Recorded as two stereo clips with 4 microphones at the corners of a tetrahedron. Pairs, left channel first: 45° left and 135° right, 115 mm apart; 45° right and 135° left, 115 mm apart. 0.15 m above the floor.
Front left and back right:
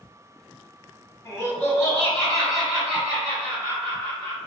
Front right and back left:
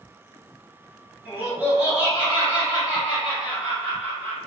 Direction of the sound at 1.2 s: 80° left.